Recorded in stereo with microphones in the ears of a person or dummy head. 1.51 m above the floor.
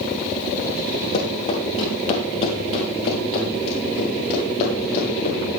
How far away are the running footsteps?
About 5 m.